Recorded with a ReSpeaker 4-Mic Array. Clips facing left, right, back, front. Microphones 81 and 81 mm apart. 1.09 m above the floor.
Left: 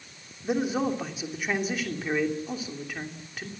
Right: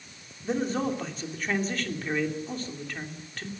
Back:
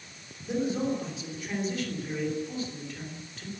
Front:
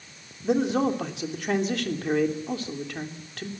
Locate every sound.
0.4 s a man speaking: 10° left, 2.5 m